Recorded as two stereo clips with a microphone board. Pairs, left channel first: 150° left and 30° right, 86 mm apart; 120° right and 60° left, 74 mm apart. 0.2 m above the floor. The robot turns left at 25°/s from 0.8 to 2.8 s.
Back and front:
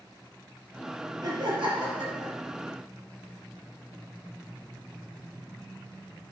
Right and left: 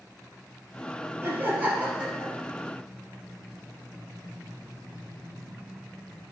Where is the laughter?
5° left, 4.5 m; by 2.3 s 25° right, 4.5 m.